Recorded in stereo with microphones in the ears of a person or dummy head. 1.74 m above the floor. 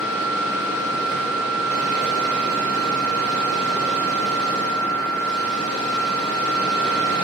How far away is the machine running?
About 2.5 m.